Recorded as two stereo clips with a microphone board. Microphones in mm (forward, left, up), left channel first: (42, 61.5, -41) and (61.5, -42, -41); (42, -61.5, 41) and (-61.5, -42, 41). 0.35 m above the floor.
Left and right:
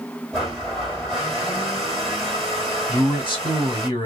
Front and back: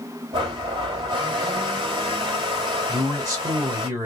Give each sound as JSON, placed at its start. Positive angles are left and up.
{"t": 0.3, "sound": "a blender", "azimuth_deg": -165, "distance_m": 2.0}
{"t": 2.9, "sound": "a man speaking", "azimuth_deg": 120, "distance_m": 1.5}